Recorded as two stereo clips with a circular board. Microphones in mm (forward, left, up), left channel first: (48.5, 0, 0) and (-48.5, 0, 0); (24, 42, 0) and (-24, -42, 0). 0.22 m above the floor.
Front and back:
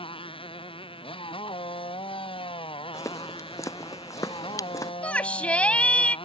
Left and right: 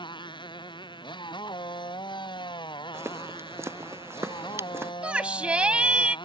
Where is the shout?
60° right.